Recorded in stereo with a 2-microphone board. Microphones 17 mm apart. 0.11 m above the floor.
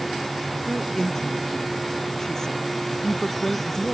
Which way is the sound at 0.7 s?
25° left (ahead or behind).